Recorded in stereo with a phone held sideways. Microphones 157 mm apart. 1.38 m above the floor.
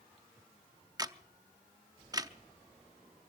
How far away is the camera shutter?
About 0.5 m.